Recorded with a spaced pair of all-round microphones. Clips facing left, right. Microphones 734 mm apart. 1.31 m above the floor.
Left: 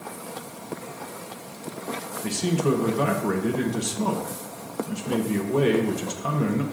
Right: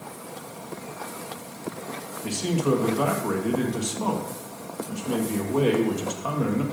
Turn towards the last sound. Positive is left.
turn(degrees=55)  # may be behind; listen again after turning